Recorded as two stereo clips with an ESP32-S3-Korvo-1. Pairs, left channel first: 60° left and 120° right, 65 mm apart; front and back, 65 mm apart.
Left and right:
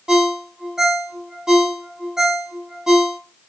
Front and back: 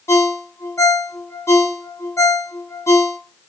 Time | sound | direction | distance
0.1 | a ringtone | 40° right | 0.5 m